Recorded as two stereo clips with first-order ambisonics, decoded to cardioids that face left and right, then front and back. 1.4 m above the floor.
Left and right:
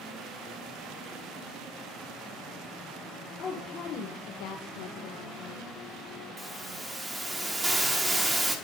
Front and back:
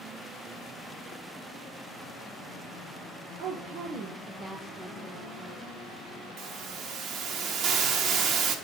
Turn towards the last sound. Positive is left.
turn(degrees=-165)